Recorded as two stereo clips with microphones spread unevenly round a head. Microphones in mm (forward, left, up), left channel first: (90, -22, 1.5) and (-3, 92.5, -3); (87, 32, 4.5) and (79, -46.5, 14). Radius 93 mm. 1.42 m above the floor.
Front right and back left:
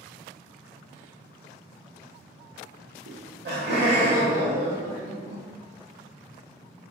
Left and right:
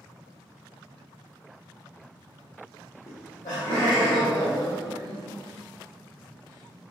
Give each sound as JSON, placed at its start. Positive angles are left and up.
{"t": 3.1, "sound": "laughter", "azimuth_deg": 130, "distance_m": 0.5}